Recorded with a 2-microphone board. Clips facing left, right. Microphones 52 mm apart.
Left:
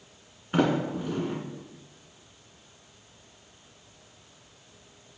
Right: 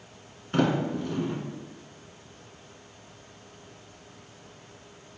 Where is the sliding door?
15° left (ahead or behind), 2 m.